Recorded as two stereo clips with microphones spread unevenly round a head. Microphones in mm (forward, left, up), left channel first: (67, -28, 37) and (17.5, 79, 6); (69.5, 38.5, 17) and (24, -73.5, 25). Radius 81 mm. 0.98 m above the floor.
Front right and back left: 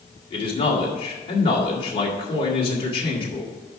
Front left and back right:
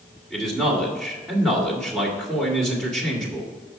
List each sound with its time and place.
0.3 s a man speaking: 20° right, 2.5 m